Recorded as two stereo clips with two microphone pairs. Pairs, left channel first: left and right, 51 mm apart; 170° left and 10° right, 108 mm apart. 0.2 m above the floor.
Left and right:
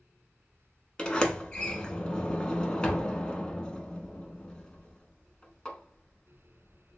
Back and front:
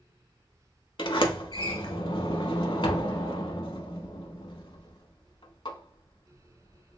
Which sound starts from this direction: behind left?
A sliding door, at 1.0 s.